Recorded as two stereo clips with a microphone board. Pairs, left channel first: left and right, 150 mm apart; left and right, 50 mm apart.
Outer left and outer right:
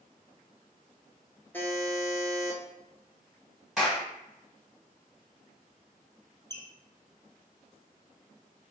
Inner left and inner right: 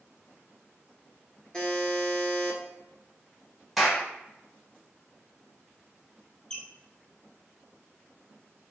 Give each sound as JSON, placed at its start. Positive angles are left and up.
{"t": 1.5, "sound": "a buzzer", "side_deg": 15, "distance_m": 0.9}
{"t": 3.8, "sound": "a clap", "side_deg": 0, "distance_m": 1.8}
{"t": 6.5, "sound": "a squeak", "side_deg": 20, "distance_m": 1.3}